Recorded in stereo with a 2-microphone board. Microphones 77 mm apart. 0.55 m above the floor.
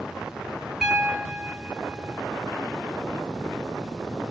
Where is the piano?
5° right (ahead or behind), 1.8 m.